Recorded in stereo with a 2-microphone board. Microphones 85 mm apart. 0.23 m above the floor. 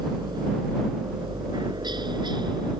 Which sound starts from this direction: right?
A helicopter, at 0.0 s.